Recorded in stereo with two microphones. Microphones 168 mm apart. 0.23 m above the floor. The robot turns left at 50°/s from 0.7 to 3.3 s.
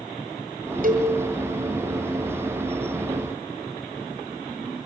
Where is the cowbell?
55° right (ahead or behind), 3 m; by 1.1 s 45° right (ahead or behind), 3 m.